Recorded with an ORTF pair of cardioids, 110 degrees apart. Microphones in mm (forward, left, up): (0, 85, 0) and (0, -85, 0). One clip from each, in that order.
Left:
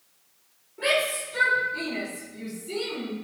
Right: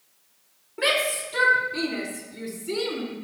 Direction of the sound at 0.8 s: 55° right.